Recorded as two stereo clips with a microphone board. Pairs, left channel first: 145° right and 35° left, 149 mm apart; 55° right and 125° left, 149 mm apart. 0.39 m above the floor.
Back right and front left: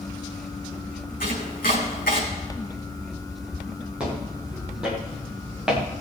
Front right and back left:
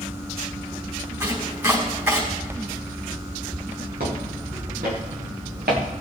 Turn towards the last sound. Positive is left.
turn(degrees=120)